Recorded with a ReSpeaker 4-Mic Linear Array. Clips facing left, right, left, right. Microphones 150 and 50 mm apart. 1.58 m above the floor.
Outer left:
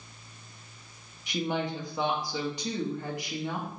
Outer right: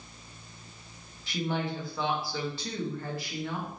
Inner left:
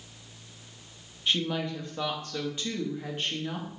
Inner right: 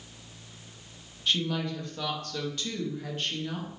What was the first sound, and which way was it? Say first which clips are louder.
A woman speaking: outer left 1 dB, even; 20° left (ahead or behind).